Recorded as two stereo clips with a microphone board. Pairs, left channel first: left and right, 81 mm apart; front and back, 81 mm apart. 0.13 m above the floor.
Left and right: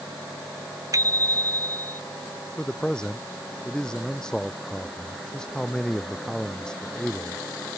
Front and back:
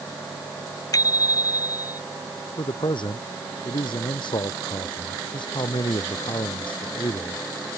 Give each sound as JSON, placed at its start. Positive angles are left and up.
{"t": 0.9, "sound": "a bicycle bell", "azimuth_deg": -45}
{"t": 2.6, "sound": "a man speaking", "azimuth_deg": 10}